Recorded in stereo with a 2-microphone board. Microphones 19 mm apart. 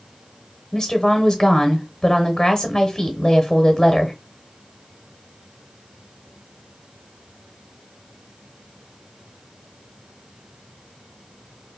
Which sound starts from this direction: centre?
A woman speaking, at 0.7 s.